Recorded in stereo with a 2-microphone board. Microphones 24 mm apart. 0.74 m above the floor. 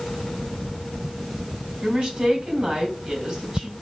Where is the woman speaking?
45° right (ahead or behind), 2 m.